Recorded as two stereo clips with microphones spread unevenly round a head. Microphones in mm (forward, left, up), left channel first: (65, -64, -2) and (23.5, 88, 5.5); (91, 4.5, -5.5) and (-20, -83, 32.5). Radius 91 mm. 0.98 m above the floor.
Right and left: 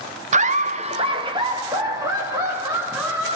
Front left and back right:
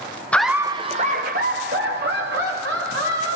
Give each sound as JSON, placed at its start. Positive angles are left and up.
{"t": 0.3, "sound": "laughter", "azimuth_deg": 95, "distance_m": 0.7}